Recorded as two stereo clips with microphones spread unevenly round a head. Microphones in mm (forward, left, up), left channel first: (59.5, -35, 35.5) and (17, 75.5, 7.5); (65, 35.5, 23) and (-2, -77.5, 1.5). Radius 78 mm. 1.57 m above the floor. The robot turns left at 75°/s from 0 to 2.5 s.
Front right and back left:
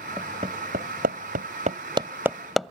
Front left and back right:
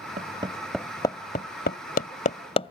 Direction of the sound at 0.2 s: 165° right.